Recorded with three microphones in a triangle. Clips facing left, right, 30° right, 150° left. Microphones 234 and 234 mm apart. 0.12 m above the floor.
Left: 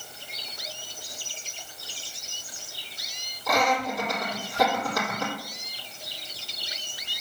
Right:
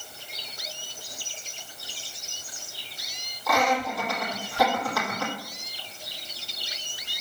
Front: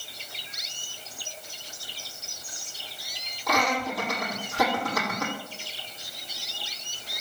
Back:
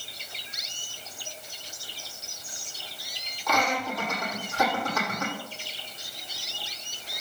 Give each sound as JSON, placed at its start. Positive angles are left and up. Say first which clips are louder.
{"t": 3.5, "sound": "laughter", "louder": "even, front 1 dB", "azimuth_deg": 20, "distance_m": 5.0}